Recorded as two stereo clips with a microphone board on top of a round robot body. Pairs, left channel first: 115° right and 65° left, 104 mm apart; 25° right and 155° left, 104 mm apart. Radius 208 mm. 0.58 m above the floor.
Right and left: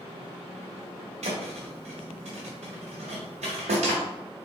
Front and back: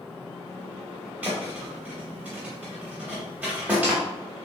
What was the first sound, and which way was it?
A thud, 80° left.